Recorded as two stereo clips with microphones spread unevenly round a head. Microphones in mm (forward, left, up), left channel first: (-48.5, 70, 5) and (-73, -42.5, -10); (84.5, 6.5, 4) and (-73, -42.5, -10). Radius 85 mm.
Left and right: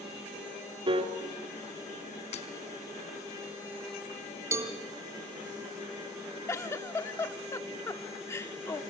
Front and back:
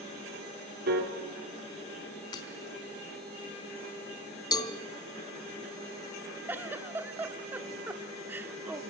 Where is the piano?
145° right, 3 m.